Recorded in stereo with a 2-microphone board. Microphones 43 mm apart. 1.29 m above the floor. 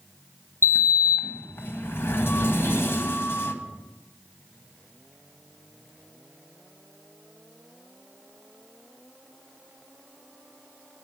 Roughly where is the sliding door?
Left.